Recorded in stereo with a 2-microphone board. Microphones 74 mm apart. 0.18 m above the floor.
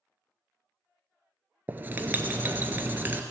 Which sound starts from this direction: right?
Writing, at 1.7 s.